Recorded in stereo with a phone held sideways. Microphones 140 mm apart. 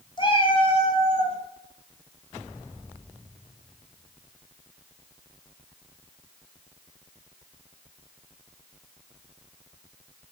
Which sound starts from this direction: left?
A cat meowing, at 0.2 s.